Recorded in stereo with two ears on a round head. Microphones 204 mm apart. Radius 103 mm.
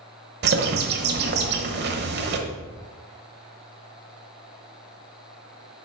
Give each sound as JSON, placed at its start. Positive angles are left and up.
{"t": 0.4, "sound": "a bird", "side_deg": -50, "distance_m": 1.0}